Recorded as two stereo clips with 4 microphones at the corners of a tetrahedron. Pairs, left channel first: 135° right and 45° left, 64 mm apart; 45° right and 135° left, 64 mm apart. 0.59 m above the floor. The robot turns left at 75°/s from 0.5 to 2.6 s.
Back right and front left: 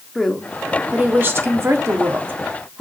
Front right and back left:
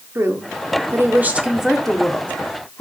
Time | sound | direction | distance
0.1 | a woman speaking | 140° left | 1.5 m